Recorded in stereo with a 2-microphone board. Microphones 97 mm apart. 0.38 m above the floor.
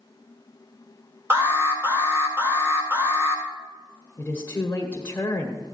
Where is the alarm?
25° right (ahead or behind), 2 m.